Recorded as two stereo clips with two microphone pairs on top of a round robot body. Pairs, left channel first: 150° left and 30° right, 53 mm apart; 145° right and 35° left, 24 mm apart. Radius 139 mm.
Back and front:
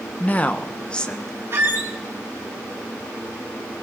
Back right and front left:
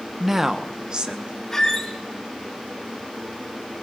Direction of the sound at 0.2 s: 110° left.